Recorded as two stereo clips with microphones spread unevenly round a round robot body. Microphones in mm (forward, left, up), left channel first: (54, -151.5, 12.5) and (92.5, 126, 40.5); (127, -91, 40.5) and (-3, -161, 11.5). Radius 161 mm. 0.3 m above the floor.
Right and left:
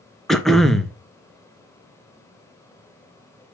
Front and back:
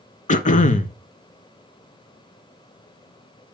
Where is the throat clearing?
10° right, 0.8 m.